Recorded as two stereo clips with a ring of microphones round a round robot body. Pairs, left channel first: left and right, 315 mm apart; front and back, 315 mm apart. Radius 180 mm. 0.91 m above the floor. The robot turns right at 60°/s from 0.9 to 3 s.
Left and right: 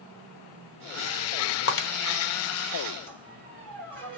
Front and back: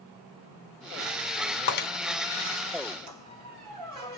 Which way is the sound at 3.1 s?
160° right.